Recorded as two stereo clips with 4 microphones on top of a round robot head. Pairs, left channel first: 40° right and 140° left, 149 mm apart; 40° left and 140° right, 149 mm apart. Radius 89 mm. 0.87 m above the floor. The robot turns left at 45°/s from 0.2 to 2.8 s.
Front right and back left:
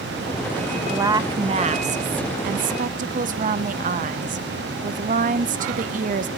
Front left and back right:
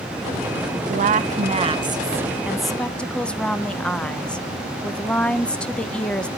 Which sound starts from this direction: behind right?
A woman speaking, at 0.9 s.